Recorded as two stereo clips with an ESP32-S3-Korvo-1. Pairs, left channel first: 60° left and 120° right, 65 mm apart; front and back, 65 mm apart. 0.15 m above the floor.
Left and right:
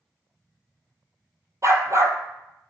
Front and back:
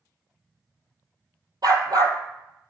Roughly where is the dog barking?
Behind.